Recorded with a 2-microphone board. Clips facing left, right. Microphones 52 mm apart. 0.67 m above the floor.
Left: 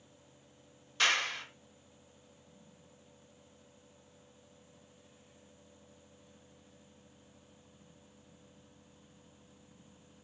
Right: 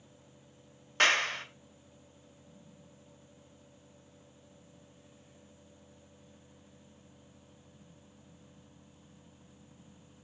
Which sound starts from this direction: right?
A clap, at 1.0 s.